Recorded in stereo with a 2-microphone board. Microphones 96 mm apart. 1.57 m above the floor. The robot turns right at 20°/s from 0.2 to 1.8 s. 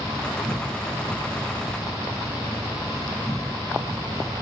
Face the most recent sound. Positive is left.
turn(degrees=-50)